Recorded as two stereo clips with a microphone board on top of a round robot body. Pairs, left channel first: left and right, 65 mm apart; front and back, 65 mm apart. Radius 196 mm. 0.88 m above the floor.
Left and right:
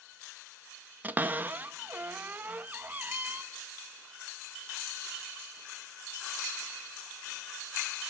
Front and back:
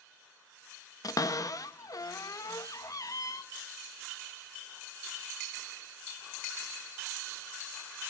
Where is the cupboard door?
25° right, 1.5 m.